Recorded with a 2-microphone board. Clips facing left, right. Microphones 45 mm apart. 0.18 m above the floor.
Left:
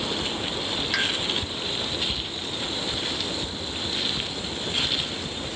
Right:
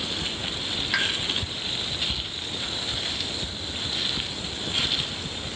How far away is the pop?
About 1.1 m.